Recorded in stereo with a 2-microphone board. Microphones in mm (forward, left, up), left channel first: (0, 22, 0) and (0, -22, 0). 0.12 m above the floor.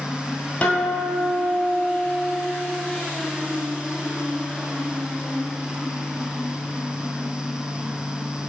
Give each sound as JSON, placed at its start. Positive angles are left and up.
{"t": 0.6, "sound": "a guitar", "side_deg": 40, "distance_m": 0.8}